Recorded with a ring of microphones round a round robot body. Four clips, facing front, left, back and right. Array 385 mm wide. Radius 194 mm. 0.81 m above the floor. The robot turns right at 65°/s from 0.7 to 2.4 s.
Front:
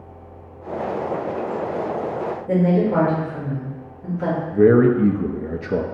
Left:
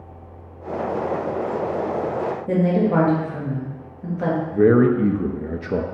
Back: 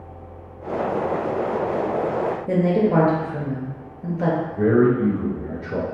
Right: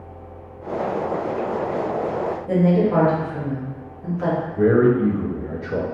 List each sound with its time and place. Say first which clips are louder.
2.5 s a woman speaking: right 1 dB, front 2 dB; 140° left, 1.5 m
4.5 s a man speaking: left 1 dB, front 5 dB; 45° left, 0.5 m